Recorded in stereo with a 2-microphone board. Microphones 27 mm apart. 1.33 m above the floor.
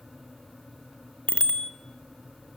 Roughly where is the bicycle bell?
Left.